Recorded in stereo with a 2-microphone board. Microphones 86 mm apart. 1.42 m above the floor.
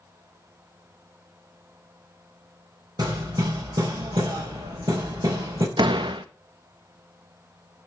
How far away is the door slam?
About 1.4 m.